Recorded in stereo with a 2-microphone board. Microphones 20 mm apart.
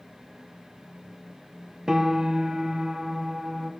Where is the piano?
30° right (ahead or behind), 0.9 m.